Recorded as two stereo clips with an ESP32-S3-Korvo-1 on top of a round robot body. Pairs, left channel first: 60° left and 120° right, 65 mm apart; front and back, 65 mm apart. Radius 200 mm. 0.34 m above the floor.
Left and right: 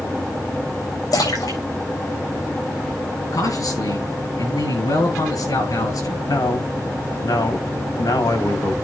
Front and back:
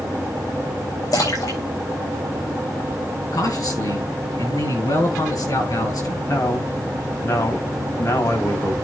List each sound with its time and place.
1.1 s a splash: 35° left, 7.5 m
3.3 s a man speaking: 30° left, 9 m
6.3 s a man speaking: 45° left, 4 m